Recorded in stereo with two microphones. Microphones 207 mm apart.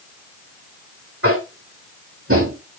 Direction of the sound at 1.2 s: 80° right.